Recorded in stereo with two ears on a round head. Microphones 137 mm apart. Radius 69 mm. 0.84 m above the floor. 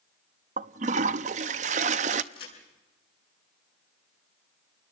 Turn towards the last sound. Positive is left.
turn(degrees=35)  # may be behind; listen again after turning